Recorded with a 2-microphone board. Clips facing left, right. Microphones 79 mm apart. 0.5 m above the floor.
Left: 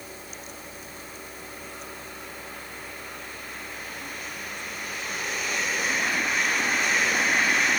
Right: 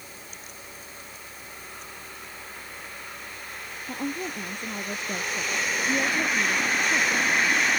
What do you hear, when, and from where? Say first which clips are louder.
3.9 s a woman speaking: right 6 dB; 60° right (ahead or behind)